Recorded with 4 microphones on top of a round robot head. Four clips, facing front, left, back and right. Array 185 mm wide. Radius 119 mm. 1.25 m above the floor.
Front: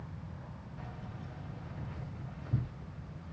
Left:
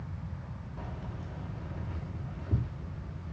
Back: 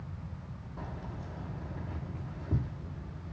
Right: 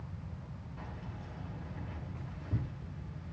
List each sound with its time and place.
0.8 s keys jangling: 155° left, 2.5 m